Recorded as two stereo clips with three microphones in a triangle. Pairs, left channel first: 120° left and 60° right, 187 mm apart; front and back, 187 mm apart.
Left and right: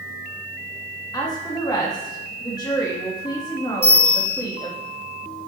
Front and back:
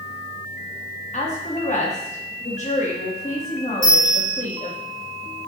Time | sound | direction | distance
1.1 | a woman speaking | 50° left | 1.3 m
3.8 | a bell | 65° left | 2.5 m